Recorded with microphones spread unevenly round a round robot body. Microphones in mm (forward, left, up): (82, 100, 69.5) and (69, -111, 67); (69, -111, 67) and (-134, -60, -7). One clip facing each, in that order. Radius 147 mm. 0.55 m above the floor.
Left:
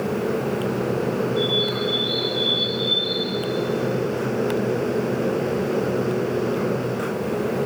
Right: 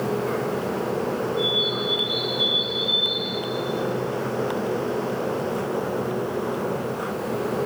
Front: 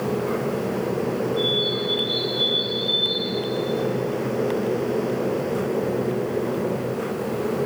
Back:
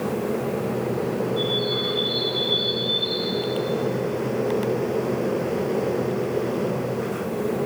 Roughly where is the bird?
Left.